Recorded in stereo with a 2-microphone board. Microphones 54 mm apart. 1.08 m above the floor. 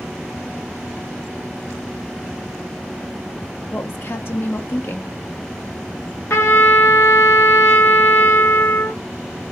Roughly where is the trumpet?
Left.